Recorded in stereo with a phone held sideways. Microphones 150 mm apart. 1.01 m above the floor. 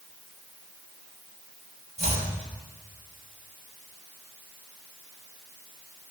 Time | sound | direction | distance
2.0 | chopping | 50° right (ahead or behind) | 5 m